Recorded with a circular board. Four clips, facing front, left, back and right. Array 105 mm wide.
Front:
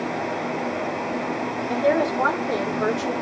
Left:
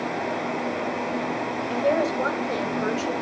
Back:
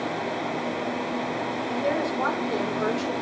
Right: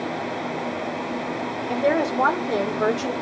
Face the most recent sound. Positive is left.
turn(degrees=-85)